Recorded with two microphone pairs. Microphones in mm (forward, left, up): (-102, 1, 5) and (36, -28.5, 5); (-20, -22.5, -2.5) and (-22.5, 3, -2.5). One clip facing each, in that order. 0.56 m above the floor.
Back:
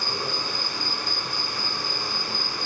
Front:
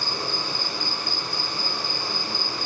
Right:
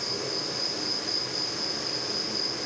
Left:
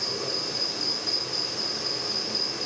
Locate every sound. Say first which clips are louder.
0.0 s an insect: even, left 2 dB; 100° left, 4 m